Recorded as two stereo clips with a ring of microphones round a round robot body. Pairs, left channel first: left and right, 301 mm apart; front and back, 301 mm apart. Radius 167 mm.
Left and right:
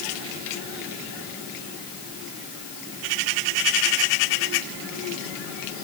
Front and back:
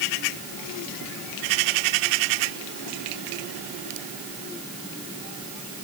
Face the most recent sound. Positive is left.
No sound to turn to.